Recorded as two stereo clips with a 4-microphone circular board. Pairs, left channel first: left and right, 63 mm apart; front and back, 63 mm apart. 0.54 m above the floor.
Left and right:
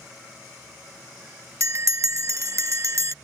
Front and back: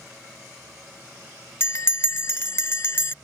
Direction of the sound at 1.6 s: 50° right.